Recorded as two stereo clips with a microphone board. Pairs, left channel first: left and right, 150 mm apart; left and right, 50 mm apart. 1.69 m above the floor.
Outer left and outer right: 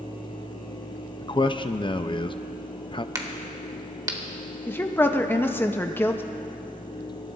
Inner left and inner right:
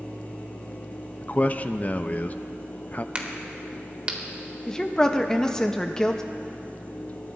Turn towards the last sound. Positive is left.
turn(degrees=15)  # may be behind; listen again after turning